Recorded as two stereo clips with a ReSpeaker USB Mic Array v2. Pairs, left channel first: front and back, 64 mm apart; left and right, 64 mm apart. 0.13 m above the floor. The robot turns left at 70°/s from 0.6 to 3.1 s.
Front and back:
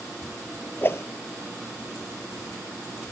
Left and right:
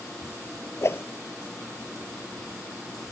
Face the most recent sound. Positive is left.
turn(degrees=-105)